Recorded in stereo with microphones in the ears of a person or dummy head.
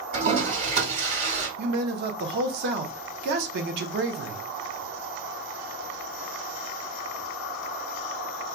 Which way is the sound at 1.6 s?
55° right (ahead or behind).